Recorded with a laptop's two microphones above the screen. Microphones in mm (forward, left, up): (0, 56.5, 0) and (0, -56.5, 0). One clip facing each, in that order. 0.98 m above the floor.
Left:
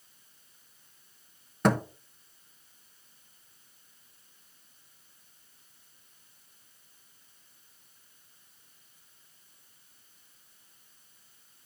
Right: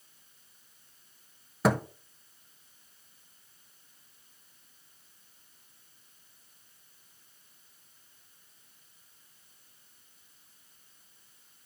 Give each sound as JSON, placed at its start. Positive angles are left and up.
{"t": 1.6, "sound": "a thud", "side_deg": -5, "distance_m": 0.8}